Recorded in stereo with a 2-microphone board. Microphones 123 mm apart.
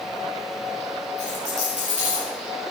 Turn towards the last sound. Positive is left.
turn(degrees=-65)  # may be behind; listen again after turning